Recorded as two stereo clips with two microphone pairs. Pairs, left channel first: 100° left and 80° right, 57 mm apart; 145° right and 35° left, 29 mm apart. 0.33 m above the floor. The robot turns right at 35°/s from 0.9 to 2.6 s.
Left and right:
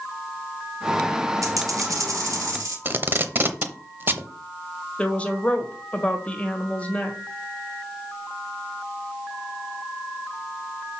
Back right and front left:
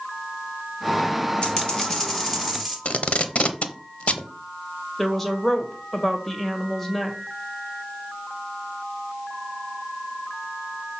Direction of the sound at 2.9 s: 120° right.